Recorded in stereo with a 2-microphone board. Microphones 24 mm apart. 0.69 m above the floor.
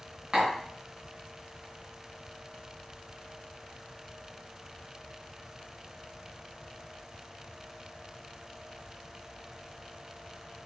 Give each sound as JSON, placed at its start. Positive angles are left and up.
{"t": 0.3, "sound": "tapping", "side_deg": -35, "distance_m": 2.5}